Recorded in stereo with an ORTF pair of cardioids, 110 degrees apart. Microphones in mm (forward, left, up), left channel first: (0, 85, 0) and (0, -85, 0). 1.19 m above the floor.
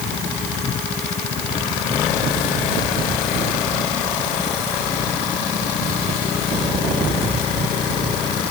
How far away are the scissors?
I don't hear scissors.